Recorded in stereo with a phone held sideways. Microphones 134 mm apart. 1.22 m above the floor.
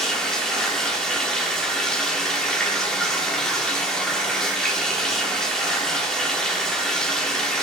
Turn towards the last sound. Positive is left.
turn(degrees=5)  # may be behind; listen again after turning